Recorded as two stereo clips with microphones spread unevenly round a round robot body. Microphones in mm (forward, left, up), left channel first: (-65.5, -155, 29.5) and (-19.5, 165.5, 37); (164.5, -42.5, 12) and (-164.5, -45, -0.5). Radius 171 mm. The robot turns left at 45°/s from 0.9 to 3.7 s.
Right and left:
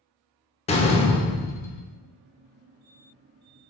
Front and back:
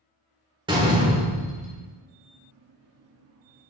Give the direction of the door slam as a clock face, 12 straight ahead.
4 o'clock.